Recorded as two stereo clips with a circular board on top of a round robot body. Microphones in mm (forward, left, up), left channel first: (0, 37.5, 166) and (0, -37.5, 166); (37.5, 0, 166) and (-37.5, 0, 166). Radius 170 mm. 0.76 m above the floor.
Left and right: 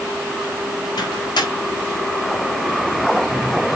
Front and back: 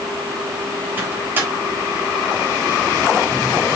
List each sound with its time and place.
1.0 s a microwave: 115° left, 4 m